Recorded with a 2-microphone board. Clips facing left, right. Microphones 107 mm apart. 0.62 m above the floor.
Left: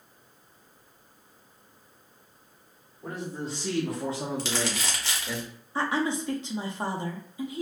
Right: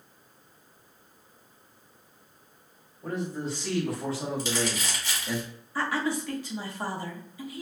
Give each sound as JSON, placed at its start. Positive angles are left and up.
{"t": 3.0, "sound": "a man speaking", "side_deg": 25, "distance_m": 1.5}
{"t": 4.4, "sound": "crumpling", "side_deg": 70, "distance_m": 0.9}
{"t": 5.8, "sound": "a woman speaking", "side_deg": 25, "distance_m": 0.6}